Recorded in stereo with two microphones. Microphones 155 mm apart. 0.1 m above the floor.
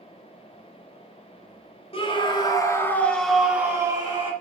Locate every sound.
1.9 s a scream: 40° left (ahead or behind), 2.5 m; by 4.3 s 35° right (ahead or behind), 2 m